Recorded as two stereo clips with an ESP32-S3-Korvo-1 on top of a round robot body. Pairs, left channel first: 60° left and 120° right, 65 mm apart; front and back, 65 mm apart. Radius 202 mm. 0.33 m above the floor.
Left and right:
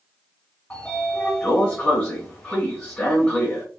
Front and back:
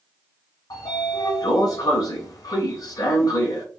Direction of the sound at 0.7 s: 10° right.